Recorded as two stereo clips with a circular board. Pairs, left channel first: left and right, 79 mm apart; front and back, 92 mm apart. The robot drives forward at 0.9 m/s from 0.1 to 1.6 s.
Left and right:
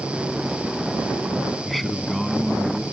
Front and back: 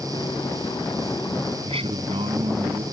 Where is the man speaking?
Straight behind.